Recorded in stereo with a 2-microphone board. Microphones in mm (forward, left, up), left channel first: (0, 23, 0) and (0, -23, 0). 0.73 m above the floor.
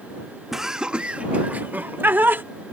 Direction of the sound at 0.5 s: 5° right (ahead or behind).